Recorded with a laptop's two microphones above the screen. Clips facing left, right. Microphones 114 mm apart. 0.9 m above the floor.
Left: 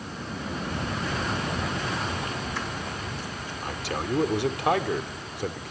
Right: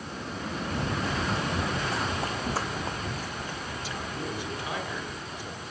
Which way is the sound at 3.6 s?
70° left (ahead or behind).